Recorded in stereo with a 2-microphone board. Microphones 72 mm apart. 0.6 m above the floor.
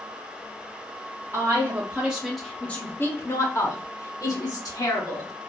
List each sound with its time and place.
1.3 s a woman speaking: 35° right (ahead or behind), 1.0 m; by 5.3 s 65° left (ahead or behind), 2.0 m